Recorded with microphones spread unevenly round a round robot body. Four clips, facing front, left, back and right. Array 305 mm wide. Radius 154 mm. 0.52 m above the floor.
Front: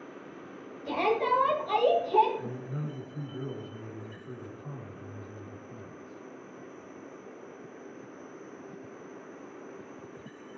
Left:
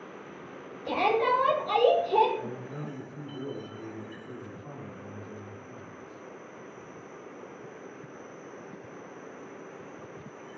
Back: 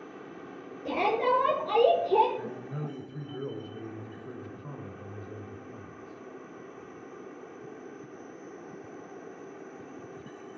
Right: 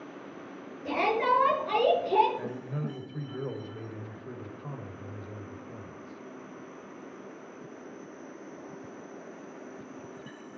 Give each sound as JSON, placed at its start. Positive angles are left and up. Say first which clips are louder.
{"t": 0.8, "sound": "a shout", "louder": "left 1 dB, back 1 dB", "azimuth_deg": -160, "distance_m": 8.5}
{"t": 2.4, "sound": "a man speaking", "louder": "right 1 dB, even", "azimuth_deg": -130, "distance_m": 2.5}